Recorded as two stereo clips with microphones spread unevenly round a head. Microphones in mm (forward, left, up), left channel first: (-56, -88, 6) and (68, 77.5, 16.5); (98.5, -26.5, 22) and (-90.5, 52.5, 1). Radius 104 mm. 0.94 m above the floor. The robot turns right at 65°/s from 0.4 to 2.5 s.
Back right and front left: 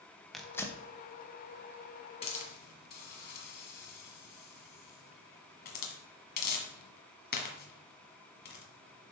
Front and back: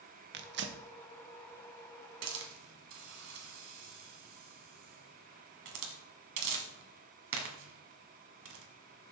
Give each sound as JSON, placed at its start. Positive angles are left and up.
{"t": 0.3, "sound": "tearing paper", "azimuth_deg": 145, "distance_m": 0.8}
{"t": 2.2, "sound": "a hiss", "azimuth_deg": 170, "distance_m": 1.5}